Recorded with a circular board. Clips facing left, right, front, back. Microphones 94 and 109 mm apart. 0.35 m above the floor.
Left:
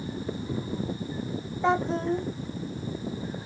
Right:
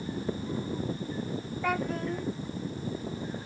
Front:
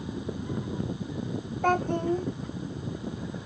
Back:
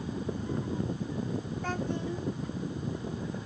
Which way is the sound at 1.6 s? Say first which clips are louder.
Left 6 dB, front 11 dB; 30° left.